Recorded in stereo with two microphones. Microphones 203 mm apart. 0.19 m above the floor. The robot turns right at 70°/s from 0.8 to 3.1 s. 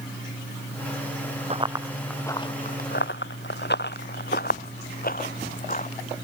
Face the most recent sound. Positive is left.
turn(degrees=40)  # may be behind; listen again after turning